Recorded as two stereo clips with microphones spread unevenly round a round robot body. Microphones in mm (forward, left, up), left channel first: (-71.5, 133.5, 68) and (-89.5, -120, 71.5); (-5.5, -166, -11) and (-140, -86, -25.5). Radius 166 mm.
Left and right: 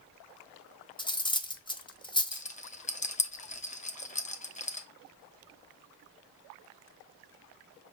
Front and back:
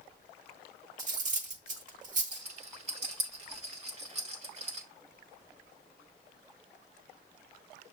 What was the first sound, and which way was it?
Cutlery clinking, 155° left.